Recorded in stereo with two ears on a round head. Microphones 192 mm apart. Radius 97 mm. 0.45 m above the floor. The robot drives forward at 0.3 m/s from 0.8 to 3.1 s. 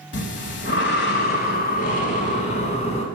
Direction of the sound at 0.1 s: 55° left (ahead or behind).